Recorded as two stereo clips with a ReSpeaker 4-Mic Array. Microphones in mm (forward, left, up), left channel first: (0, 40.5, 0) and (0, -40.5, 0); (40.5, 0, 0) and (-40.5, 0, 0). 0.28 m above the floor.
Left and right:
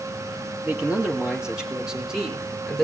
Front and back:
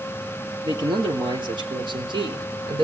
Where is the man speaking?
165° right, 5.5 m; by 2.8 s straight behind, 5 m.